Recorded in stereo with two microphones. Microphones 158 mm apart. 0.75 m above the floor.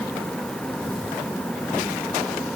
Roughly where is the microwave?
No microwave in this recording.